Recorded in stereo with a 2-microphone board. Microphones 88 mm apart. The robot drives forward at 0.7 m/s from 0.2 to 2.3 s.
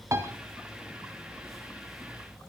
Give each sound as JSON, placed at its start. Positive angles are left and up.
{"t": 0.1, "sound": "a piano", "side_deg": -35, "distance_m": 1.4}